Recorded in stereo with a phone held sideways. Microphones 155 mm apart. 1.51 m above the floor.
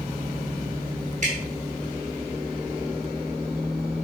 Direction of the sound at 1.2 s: 50° right (ahead or behind).